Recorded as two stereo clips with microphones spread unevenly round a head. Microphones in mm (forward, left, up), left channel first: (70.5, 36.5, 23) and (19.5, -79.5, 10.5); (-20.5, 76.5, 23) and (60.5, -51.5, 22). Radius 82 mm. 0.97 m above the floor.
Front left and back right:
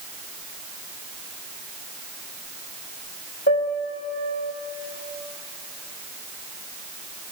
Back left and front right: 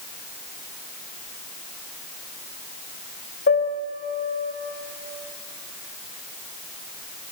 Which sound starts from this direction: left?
A piano, at 3.5 s.